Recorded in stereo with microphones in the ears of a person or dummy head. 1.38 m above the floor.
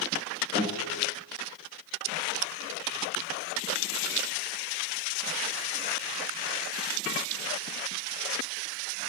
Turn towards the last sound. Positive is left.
turn(degrees=-45)  # may be behind; listen again after turning